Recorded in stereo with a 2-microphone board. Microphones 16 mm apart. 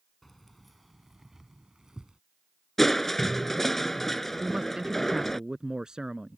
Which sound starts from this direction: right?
A man speaking, at 4.4 s.